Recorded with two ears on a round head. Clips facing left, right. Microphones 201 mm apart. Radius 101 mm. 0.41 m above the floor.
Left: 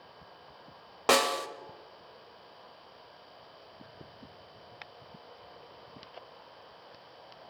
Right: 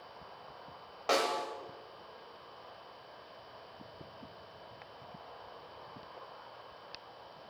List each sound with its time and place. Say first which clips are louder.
1.1 s a snare drum: left 4 dB; 65° left (ahead or behind), 1.1 m